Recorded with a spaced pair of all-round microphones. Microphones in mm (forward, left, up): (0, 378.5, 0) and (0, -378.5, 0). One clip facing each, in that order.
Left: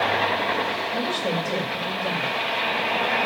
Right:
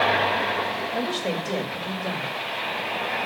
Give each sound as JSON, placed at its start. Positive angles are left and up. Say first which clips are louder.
{"t": 0.9, "sound": "a woman speaking", "louder": "even", "side_deg": 30, "distance_m": 6.5}